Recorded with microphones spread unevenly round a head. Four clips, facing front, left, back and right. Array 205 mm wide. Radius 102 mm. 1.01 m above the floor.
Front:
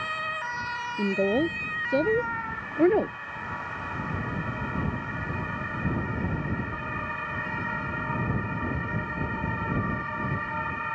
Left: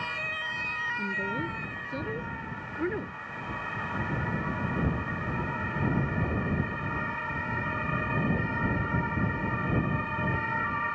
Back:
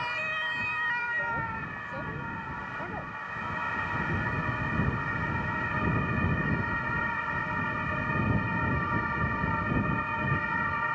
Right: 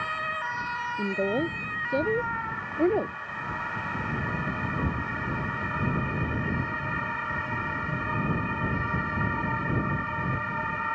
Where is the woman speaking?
10° right.